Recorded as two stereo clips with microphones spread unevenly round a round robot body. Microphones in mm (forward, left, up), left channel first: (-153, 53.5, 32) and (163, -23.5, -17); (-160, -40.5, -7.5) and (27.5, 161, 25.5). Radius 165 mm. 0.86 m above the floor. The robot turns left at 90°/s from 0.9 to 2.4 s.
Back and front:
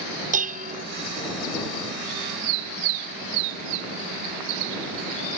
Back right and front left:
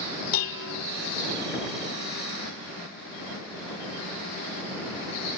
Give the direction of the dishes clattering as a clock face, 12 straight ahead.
3 o'clock.